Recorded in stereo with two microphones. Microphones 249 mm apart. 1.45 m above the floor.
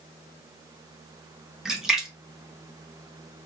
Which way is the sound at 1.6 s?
Centre (ahead or behind).